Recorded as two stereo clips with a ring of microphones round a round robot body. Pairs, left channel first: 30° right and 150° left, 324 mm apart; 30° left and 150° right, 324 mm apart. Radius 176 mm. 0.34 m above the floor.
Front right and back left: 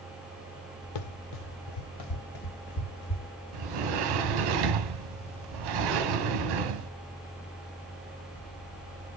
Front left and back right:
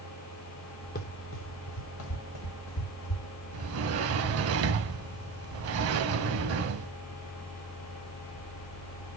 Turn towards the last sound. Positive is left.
turn(degrees=165)